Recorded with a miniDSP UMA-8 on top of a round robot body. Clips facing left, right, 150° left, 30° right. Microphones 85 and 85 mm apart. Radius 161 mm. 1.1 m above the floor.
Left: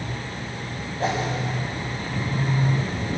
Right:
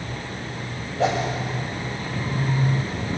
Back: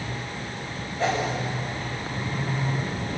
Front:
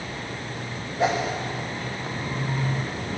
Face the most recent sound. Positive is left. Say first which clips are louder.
# right 3 dB, front 2 dB
turn(degrees=-110)